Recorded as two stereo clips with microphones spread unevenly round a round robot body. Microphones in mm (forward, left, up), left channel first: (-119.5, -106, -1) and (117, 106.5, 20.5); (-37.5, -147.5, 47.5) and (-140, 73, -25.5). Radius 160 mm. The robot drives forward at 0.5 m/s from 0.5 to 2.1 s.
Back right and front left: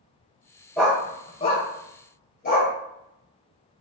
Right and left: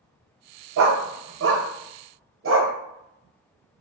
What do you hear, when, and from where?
0.8 s a dog barking: 130° left, 0.7 m; by 2.7 s 155° left, 1.2 m